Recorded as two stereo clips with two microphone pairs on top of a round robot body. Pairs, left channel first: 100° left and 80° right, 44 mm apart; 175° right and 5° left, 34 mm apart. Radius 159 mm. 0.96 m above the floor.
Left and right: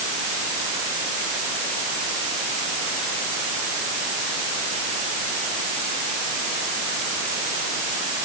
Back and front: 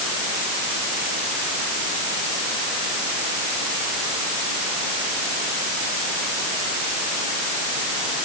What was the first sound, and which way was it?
Only background noise.